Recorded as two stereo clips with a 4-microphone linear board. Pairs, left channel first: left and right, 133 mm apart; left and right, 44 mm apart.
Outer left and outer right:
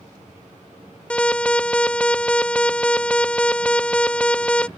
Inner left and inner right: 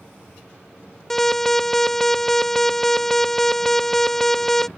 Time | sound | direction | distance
1.1 | an alarm | 10° left (ahead or behind) | ?